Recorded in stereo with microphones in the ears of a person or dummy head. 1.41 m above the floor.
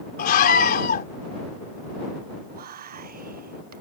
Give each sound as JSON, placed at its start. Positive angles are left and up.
{"t": 0.2, "sound": "a scream", "side_deg": 50}
{"t": 2.5, "sound": "whispering", "side_deg": -45}